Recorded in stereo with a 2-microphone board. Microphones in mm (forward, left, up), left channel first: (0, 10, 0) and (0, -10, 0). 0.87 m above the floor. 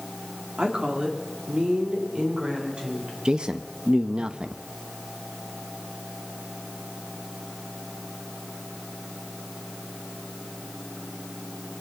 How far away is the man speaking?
About 0.6 m.